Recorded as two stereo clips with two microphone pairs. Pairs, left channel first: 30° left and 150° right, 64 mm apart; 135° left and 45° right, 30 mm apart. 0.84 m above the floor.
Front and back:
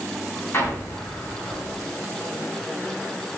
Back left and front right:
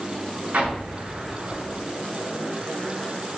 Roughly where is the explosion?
Ahead right.